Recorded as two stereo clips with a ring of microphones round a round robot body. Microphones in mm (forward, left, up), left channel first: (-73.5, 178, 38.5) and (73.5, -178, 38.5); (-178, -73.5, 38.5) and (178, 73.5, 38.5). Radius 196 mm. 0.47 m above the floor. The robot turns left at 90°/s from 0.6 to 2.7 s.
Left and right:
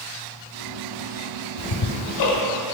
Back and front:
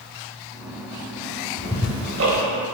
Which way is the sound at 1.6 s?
135° left.